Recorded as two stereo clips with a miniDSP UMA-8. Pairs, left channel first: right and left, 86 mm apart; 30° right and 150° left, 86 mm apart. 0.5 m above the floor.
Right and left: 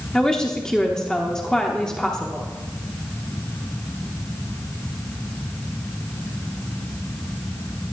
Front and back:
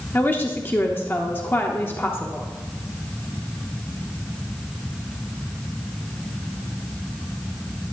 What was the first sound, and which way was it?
A woman speaking, 20° right.